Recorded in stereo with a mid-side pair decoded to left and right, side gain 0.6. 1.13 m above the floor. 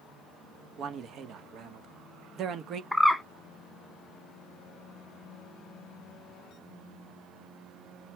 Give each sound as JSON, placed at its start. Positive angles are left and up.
{"t": 0.8, "sound": "a man speaking", "azimuth_deg": -50, "distance_m": 1.2}
{"t": 2.9, "sound": "a bird", "azimuth_deg": 0, "distance_m": 1.1}